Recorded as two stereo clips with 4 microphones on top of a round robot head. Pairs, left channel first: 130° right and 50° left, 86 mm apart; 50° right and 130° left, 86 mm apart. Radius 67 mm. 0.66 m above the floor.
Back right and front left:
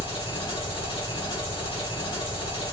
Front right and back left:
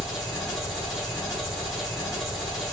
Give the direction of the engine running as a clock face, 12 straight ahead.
5 o'clock.